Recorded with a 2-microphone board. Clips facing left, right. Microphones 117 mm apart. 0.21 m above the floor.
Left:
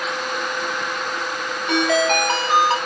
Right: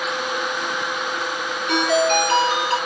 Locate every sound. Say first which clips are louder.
1.7 s a ringtone: even; 60° left (ahead or behind), 1.6 m